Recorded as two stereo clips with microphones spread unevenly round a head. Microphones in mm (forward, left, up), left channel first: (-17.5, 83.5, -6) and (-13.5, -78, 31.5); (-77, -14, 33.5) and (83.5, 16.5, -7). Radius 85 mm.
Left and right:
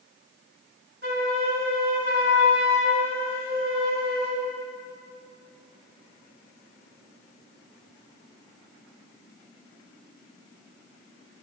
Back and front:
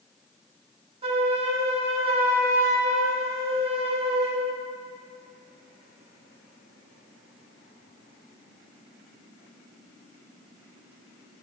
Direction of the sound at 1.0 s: 50° right.